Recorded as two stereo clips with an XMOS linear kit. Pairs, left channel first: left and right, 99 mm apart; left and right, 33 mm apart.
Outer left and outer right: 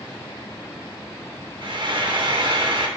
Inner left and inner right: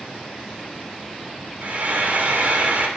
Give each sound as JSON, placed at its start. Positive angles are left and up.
{"t": 1.6, "sound": "frying", "side_deg": -55, "distance_m": 1.1}